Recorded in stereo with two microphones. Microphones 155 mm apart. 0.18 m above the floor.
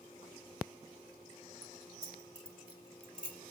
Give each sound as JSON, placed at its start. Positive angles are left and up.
{"t": 1.6, "sound": "keys jangling", "side_deg": -30, "distance_m": 2.0}